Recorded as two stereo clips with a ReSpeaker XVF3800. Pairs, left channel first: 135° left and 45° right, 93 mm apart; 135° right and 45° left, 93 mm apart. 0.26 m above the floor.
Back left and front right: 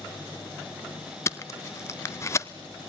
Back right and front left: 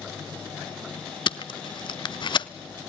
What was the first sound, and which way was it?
Tape being pulled, 165° right.